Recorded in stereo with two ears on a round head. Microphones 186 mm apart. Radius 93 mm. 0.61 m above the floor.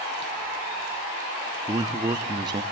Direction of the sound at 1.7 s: 20° right (ahead or behind).